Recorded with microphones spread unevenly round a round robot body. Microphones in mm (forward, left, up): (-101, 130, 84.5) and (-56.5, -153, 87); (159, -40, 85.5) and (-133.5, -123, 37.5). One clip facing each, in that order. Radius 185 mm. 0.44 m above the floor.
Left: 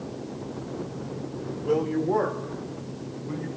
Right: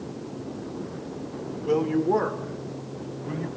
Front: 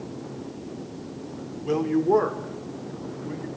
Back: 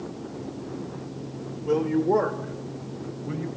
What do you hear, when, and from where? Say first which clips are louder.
1.6 s a woman speaking: right 2 dB, even; 25° right, 1.6 m; by 3.5 s 100° right, 2.5 m